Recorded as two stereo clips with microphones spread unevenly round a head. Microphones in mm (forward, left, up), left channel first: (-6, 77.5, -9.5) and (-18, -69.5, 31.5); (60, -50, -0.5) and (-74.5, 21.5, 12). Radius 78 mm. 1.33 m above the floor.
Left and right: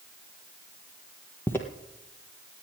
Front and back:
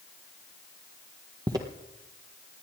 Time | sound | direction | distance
1.5 | footsteps | 175° left | 1.5 m